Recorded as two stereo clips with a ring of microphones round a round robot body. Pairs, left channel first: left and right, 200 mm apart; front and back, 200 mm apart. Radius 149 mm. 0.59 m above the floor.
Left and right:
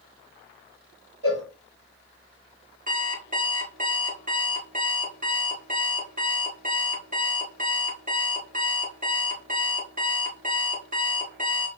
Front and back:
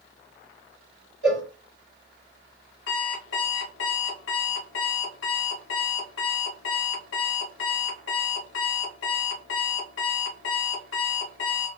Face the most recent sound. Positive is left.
turn(degrees=-45)